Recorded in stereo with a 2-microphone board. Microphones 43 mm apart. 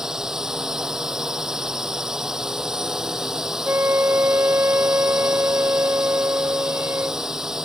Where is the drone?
10° right (ahead or behind).